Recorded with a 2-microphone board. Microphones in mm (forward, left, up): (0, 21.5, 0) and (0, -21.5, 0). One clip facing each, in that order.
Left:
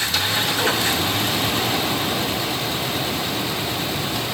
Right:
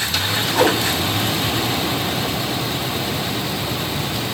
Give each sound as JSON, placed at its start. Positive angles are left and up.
{"t": 0.5, "sound": "a whoosh", "side_deg": -75, "distance_m": 2.5}